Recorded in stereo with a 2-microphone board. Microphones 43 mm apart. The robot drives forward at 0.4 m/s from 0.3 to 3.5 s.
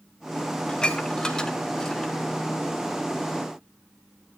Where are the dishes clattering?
20° left (ahead or behind), 1.1 m; by 2.1 s 15° left (ahead or behind), 1.5 m.